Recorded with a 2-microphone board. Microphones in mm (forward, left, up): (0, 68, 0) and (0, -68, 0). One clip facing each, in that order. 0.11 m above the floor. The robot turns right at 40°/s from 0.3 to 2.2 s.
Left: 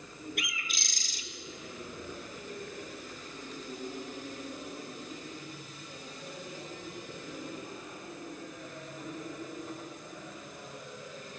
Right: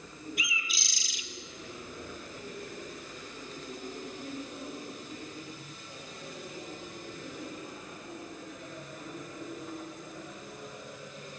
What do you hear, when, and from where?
0.4 s a bird: 105° left, 1.0 m; by 1.2 s 140° left, 1.0 m